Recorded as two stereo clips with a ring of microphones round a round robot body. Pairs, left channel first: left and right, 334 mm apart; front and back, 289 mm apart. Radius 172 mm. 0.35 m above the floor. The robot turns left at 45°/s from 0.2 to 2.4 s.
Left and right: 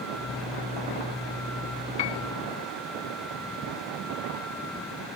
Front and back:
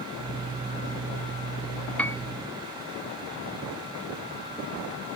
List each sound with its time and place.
2.0 s a piano: 85° left; by 2.2 s 75° left